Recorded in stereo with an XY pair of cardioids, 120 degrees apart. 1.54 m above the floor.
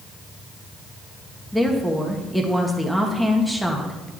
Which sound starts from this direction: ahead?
A woman speaking, at 1.5 s.